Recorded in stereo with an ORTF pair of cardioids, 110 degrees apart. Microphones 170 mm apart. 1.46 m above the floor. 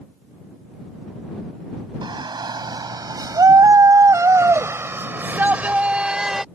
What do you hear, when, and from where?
2.0 s a shout: 25° right; by 6.5 s straight ahead